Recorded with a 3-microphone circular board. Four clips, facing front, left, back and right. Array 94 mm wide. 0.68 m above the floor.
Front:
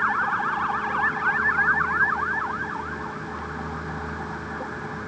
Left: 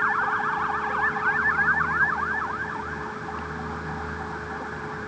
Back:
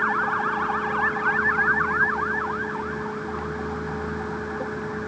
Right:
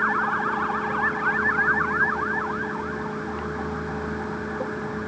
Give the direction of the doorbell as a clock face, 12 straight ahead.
I don't hear a doorbell.